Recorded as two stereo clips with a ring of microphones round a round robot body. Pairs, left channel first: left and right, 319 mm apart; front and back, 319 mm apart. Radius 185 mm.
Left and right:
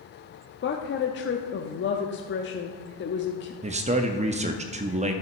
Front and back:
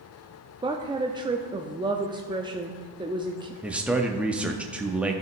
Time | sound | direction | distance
0.6 | a woman speaking | 110° left | 0.7 m
3.6 | a man speaking | 100° right | 0.6 m